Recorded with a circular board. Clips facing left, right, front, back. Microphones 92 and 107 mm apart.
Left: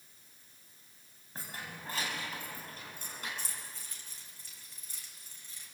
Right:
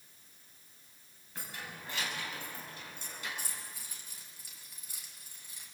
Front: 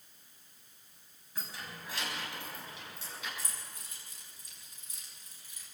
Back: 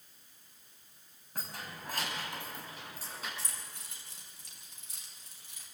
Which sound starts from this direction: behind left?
Keys jangling, at 1.4 s.